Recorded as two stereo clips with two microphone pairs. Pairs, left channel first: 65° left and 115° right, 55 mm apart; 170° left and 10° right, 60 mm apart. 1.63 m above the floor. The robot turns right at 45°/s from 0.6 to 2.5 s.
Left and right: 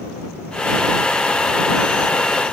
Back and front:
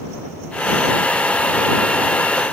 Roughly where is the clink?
No clink in this recording.